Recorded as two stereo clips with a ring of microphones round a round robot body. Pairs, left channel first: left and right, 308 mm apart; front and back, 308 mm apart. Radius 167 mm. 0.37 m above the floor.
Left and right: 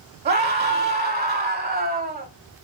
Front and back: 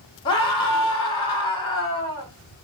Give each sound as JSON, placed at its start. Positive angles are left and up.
{"t": 0.2, "sound": "a scream", "azimuth_deg": -55, "distance_m": 1.0}